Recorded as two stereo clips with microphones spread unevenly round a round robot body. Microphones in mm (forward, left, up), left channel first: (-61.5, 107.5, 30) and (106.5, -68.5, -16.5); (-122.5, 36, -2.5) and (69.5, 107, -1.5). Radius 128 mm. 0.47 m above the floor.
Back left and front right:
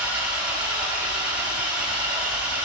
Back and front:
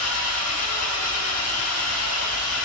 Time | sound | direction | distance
0.0 | an engine running | 130° right | 1.0 m